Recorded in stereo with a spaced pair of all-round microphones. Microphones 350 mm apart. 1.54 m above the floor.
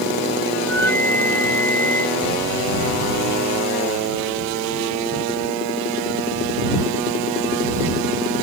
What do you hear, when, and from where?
0.6 s a flute: 5° left (ahead or behind)